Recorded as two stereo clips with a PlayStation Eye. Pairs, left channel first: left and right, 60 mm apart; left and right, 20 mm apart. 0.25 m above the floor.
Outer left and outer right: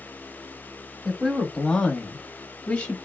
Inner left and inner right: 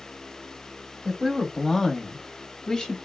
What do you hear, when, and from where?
1.1 s a woman speaking: 10° left (ahead or behind), 1.4 m; by 3.0 s 25° left (ahead or behind), 1.1 m